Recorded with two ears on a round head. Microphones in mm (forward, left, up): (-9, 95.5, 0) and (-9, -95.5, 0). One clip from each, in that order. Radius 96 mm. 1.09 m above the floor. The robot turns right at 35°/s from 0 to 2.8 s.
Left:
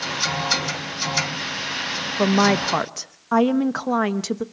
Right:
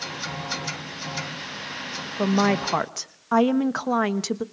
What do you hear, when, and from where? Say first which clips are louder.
2.2 s a woman speaking: left 4 dB; 15° left (ahead or behind), 0.8 m; by 4.4 s 5° right (ahead or behind), 0.8 m